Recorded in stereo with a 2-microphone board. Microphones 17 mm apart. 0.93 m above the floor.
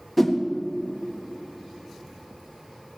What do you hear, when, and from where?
0.2 s a whoosh: centre (ahead or behind), 1.3 m